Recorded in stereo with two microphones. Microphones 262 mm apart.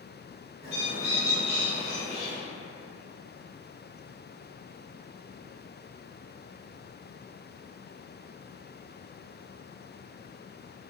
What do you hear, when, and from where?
0.6 s a bird: 25° right (ahead or behind), 1.2 m